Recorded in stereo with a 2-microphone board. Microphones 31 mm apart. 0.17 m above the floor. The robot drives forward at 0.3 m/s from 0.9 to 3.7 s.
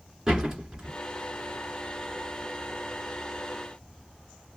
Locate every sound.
0.3 s a door slam: 25° right (ahead or behind), 1.9 m